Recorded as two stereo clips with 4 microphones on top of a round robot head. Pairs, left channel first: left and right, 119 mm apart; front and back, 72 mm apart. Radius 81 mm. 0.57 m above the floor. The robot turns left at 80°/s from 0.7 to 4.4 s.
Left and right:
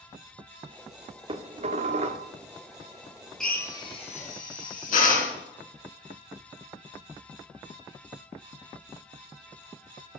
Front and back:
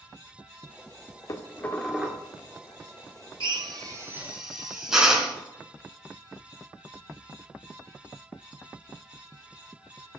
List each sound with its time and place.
1.3 s dishes clattering: 45° right, 0.9 m; by 2.2 s 120° right, 0.9 m
3.4 s a drill: 175° left, 3.5 m; by 5.4 s 95° left, 3.5 m